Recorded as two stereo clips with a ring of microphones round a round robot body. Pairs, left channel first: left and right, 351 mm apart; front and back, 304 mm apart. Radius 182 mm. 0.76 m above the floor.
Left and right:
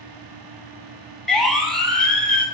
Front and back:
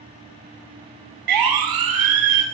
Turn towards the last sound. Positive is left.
turn(degrees=175)